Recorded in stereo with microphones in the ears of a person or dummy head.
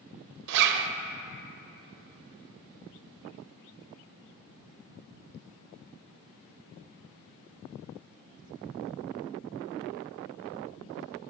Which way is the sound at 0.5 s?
60° right (ahead or behind).